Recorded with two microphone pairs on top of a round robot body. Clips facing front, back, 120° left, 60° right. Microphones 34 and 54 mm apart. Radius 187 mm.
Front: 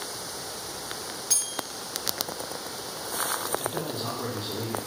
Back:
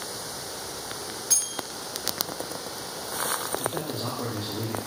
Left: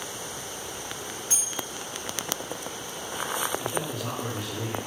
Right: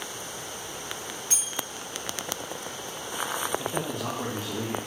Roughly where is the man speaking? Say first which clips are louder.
Back 1 dB, even; behind right.